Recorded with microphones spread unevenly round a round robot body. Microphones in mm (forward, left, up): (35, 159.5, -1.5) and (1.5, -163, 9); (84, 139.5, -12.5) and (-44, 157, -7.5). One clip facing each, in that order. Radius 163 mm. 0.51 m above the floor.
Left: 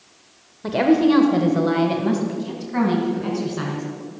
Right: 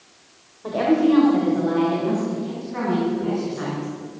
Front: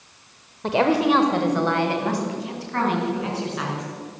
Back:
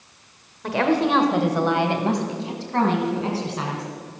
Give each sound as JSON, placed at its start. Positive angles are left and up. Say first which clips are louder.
{"t": 0.6, "sound": "a woman speaking", "louder": "left 2 dB, front 1 dB", "azimuth_deg": 50, "distance_m": 1.4}